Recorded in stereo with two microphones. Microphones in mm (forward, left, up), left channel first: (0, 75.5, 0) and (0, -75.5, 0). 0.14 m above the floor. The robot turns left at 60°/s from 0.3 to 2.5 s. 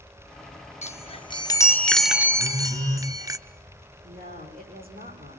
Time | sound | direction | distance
0.8 | a chime | 75° left | 1.1 m
2.4 | a phone buzzing | 75° right (ahead or behind) | 5 m
4.0 | a woman speaking | 80° right | 8.5 m